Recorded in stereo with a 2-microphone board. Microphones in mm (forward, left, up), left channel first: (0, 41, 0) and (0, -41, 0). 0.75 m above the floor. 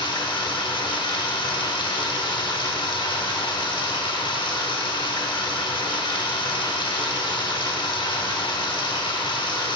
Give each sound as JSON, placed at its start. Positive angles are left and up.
{"t": 0.0, "sound": "running water", "side_deg": 75, "distance_m": 1.0}